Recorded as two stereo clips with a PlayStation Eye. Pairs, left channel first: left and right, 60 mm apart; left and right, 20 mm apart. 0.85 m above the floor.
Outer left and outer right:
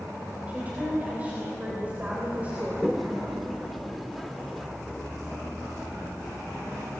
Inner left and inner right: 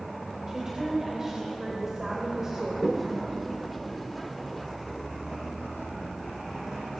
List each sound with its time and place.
0.5 s a woman speaking: 25° right (ahead or behind), 3.5 m
2.8 s a toilet flushing: centre (ahead or behind), 0.9 m